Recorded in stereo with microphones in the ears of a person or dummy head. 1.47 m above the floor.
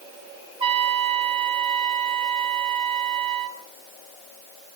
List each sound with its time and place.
0.6 s a trumpet: 30° right (ahead or behind), 1.4 m